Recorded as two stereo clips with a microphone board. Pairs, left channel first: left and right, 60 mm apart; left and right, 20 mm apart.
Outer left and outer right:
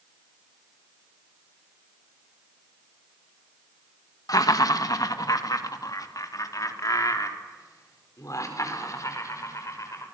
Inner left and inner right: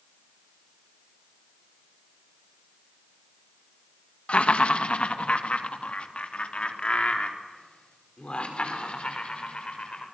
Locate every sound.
4.3 s laughter: 75° left (ahead or behind), 1.8 m; by 10.0 s 60° left (ahead or behind), 6.5 m